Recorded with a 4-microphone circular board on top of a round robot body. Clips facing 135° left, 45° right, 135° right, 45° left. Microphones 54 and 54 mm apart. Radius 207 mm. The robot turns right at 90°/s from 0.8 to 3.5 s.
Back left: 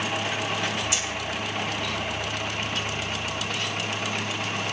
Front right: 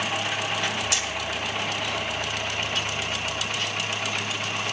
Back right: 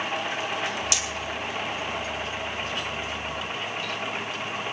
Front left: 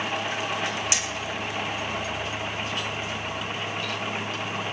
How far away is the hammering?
About 3.5 m.